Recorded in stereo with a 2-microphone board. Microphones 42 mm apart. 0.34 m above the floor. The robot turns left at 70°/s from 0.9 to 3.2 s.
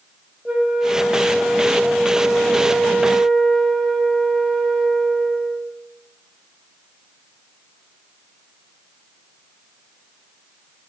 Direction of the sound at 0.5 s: 35° right.